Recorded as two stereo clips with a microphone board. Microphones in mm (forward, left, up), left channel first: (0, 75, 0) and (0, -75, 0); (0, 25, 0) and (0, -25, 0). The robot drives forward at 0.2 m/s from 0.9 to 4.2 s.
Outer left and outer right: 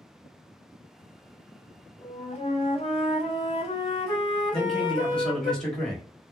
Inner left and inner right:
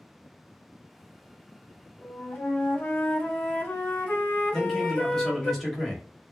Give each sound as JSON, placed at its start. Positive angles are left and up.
{"t": 2.0, "sound": "a flute", "side_deg": 40, "distance_m": 0.8}
{"t": 4.5, "sound": "a man speaking", "side_deg": 5, "distance_m": 1.0}